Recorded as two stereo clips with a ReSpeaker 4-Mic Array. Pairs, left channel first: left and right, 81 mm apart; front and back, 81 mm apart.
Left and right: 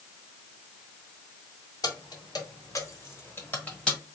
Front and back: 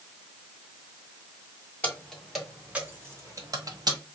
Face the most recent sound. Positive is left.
turn(degrees=170)